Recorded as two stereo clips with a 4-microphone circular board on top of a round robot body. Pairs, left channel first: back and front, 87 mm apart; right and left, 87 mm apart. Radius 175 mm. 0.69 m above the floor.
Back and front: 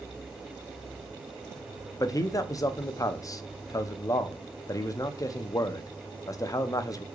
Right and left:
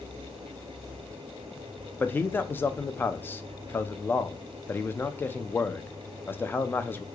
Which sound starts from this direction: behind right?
A man speaking, at 2.0 s.